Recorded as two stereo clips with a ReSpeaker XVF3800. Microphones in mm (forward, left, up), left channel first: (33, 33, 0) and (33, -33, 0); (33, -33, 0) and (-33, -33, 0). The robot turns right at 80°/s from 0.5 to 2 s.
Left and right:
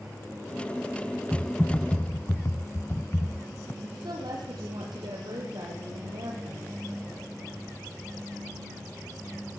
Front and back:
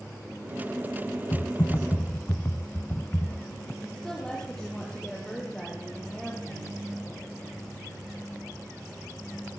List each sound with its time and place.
1.3 s typing on a keyboard: 5° right, 0.8 m; by 3.7 s 50° left, 0.8 m
3.8 s a woman speaking: 80° right, 8 m